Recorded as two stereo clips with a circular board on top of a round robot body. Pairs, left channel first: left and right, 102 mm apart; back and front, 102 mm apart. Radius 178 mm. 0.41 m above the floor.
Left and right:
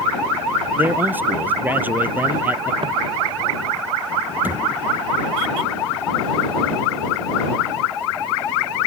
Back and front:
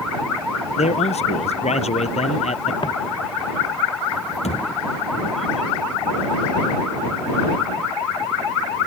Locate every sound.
0.8 s a man speaking: 165° right
2.8 s footsteps: 135° right
4.4 s a thud: 165° right